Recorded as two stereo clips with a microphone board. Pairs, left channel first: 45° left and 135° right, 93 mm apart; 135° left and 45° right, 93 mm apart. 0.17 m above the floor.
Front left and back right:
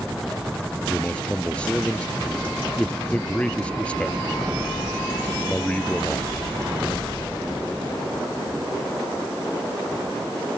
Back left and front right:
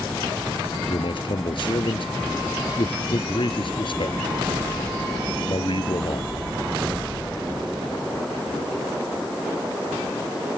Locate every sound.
0.9 s a man speaking: 120° left